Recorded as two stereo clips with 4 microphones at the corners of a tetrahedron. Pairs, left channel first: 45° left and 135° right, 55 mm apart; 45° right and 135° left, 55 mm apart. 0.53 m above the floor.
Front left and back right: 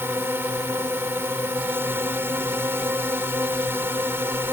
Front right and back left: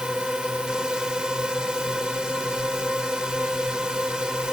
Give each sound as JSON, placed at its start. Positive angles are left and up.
{"t": 0.0, "sound": "a drone", "azimuth_deg": -155}